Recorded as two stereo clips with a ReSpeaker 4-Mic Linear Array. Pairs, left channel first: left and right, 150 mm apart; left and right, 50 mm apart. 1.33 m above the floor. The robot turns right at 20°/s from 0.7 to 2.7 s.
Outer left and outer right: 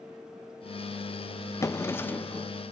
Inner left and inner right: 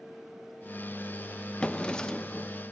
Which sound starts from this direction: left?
A drawer, at 1.6 s.